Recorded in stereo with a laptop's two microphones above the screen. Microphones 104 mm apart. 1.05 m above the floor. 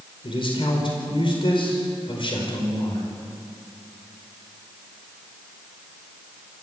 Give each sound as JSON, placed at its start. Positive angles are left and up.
{"t": 0.2, "sound": "a man speaking", "side_deg": 55, "distance_m": 4.5}